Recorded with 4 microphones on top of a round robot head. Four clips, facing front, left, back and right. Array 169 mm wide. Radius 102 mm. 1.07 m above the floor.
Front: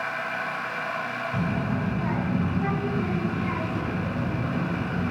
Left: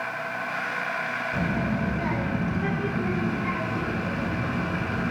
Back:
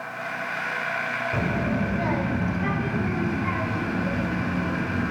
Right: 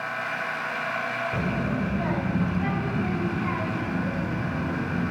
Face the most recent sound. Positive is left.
turn(degrees=-130)